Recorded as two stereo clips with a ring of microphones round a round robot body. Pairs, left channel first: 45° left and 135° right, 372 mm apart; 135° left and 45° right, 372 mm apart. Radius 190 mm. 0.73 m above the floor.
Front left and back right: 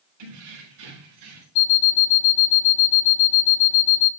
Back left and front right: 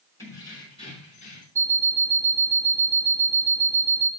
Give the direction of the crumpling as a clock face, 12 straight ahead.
No crumpling in this recording.